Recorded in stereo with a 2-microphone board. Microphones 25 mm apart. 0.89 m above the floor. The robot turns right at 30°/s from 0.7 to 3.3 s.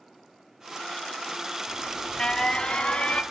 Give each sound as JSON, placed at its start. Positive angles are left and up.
{"t": 1.7, "sound": "an alarm", "azimuth_deg": 15, "distance_m": 1.0}